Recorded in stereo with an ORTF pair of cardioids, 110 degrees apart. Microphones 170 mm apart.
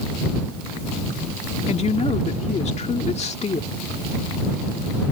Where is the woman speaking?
40° left.